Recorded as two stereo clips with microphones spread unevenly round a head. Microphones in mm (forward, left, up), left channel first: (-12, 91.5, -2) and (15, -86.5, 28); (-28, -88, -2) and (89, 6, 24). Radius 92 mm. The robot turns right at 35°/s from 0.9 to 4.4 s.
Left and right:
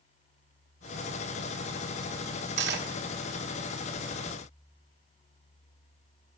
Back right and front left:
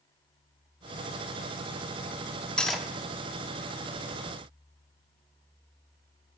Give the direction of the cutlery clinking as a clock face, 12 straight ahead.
2 o'clock.